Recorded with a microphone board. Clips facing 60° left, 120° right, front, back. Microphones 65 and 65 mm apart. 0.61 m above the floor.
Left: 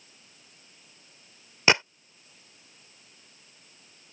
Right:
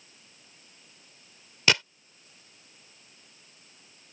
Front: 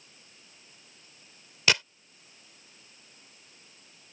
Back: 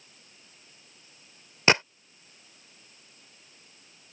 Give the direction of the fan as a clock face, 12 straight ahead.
I don't hear a fan.